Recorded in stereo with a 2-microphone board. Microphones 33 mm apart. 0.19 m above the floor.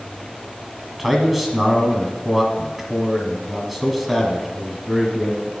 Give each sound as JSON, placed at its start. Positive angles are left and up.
{"t": 1.0, "sound": "a man speaking", "side_deg": -10, "distance_m": 1.4}